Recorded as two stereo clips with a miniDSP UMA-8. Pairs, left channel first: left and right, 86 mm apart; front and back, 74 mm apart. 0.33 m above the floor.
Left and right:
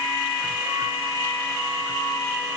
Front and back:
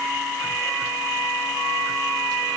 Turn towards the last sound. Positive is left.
No sound to turn to.